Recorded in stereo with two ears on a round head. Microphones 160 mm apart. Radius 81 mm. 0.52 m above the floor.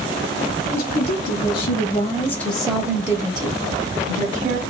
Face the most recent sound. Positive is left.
turn(degrees=-50)  # may be behind; listen again after turning